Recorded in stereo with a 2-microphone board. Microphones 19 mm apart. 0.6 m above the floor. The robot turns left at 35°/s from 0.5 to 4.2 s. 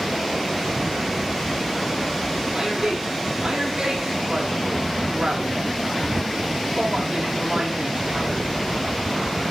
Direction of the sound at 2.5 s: 50° right.